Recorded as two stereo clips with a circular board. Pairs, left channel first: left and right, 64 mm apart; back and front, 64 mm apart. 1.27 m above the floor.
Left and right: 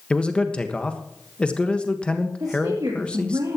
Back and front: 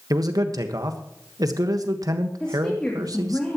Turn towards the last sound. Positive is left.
turn(degrees=-105)